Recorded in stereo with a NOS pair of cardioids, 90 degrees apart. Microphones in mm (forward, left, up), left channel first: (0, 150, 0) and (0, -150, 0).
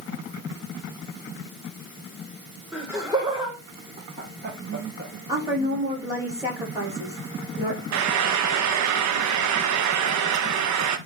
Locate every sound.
2.7 s laughter: 5° right, 2.5 m; by 5.1 s 40° right, 2 m
5.3 s a woman speaking: 10° right, 6 m
7.9 s frying: 65° right, 1.0 m